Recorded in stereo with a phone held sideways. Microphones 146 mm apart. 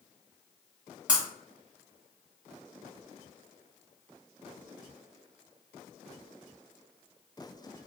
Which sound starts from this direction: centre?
Breaking glass, at 1.1 s.